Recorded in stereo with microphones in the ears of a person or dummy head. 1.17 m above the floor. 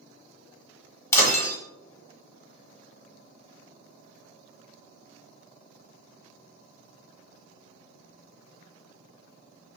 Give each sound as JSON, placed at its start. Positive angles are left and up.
{"t": 1.1, "sound": "breaking glass", "side_deg": 20, "distance_m": 1.1}